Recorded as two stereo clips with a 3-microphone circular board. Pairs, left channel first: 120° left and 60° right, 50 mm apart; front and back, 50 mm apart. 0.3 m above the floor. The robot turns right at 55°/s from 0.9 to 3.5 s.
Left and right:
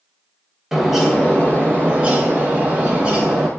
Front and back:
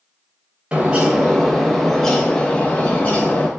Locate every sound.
0.7 s a bird: 140° right, 0.6 m; by 3.5 s 5° left, 0.6 m